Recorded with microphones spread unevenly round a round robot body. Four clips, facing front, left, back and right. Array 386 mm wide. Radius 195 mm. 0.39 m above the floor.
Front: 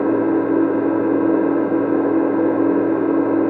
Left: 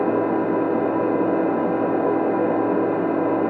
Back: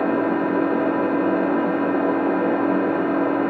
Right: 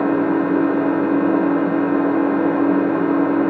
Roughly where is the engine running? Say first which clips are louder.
Right 3 dB, front 4 dB; ahead.